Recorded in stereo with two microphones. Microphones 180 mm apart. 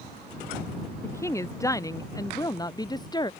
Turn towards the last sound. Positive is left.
turn(degrees=25)  # may be behind; listen again after turning